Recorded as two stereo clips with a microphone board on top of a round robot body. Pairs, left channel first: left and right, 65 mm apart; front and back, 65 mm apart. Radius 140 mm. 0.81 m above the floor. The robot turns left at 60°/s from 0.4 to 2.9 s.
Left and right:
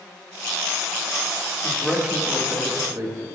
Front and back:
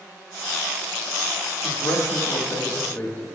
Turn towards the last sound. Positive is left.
turn(degrees=-60)